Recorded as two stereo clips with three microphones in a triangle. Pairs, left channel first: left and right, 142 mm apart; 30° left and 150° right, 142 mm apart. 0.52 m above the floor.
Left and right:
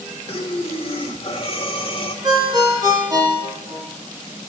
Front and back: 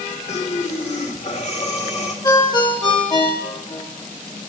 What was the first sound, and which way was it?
Breathing, 50° left.